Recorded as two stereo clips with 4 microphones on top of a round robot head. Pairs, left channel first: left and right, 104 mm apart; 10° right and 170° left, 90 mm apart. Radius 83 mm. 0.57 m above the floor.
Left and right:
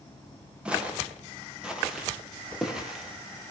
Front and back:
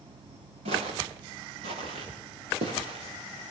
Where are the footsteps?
170° right, 7 m; by 3.5 s 175° right, 9 m.